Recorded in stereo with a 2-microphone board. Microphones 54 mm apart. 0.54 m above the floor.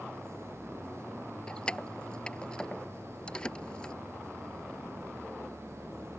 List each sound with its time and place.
1.5 s keys jangling: 15° left (ahead or behind)